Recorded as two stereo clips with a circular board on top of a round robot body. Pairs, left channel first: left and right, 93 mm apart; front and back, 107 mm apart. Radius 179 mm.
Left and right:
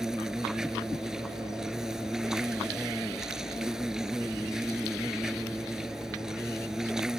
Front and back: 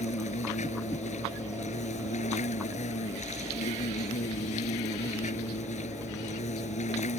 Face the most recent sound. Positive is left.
turn(degrees=-5)